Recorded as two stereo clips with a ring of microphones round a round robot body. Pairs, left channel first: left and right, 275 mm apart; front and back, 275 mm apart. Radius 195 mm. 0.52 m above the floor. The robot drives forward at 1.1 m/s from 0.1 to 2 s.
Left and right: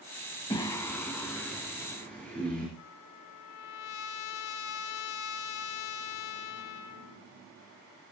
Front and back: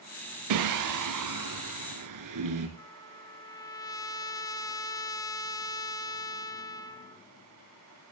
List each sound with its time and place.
0.5 s singing: 170° left, 0.5 m; by 2.7 s 175° left, 2 m
2.8 s a trumpet: 80° left, 1.3 m